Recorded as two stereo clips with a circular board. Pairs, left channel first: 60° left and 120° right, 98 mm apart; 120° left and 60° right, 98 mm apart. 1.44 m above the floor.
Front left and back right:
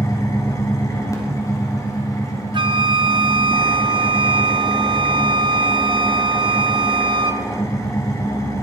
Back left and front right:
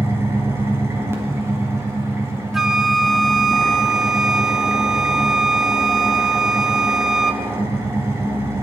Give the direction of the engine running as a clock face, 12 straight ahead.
12 o'clock.